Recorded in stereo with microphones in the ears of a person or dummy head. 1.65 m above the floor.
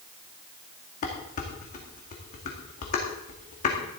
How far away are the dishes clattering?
About 2 m.